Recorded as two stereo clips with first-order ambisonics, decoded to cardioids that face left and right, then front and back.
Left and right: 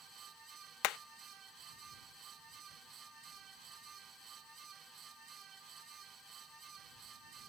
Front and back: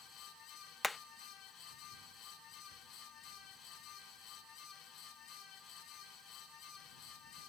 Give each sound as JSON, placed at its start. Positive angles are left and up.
{"t": 0.8, "sound": "hammering", "azimuth_deg": 80}